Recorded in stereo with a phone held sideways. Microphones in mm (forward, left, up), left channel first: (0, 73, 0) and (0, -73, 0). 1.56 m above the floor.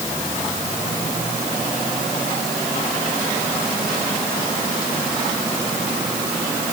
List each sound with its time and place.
Only background noise.